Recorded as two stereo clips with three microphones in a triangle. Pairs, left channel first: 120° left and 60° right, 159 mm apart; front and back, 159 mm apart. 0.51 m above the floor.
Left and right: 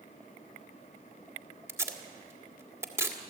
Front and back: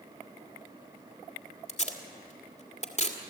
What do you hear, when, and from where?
1.7 s tape being pulled: 5° left, 1.8 m